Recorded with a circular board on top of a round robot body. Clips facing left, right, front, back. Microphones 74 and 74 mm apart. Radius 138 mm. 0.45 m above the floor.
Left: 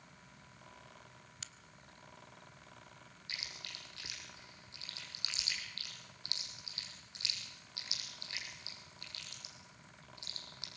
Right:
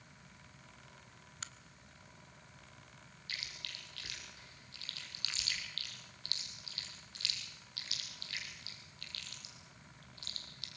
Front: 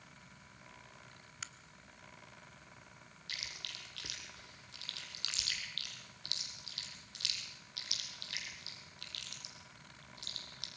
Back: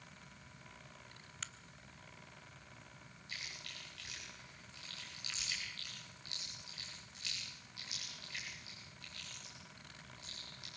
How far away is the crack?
About 1.4 m.